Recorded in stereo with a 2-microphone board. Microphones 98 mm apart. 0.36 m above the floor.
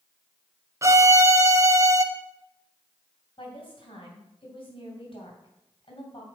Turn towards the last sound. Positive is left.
turn(degrees=55)  # may be behind; listen again after turning